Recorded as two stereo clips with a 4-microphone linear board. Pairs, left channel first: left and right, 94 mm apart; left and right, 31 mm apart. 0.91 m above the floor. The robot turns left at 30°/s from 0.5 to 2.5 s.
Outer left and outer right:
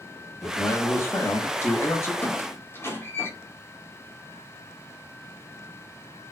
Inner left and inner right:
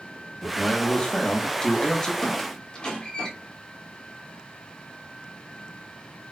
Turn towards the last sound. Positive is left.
turn(degrees=25)  # may be behind; listen again after turning